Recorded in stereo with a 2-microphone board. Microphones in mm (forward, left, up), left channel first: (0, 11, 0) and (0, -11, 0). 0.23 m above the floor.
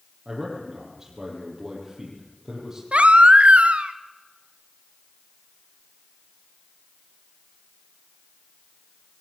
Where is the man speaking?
25° right (ahead or behind), 6.5 m.